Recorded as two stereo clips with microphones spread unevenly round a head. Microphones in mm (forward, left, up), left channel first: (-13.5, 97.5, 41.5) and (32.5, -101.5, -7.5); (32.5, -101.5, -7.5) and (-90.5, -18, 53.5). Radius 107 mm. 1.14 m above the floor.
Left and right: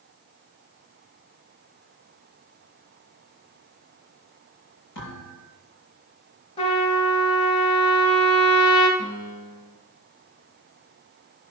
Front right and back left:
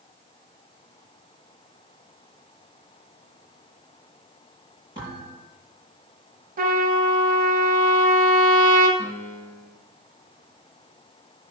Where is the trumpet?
160° left, 3 m.